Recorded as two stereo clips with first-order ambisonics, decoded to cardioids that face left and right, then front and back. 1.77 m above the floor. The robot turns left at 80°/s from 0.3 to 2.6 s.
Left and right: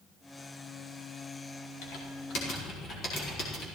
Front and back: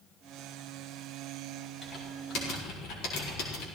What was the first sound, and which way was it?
Typing on a keyboard, 90° left.